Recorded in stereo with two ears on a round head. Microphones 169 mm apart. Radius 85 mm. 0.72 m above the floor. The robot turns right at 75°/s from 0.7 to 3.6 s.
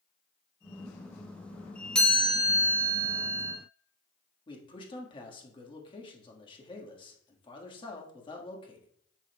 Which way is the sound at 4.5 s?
25° left (ahead or behind).